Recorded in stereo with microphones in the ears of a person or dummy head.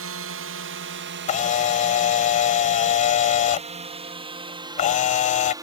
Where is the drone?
55° right (ahead or behind); by 5.6 s 10° right (ahead or behind).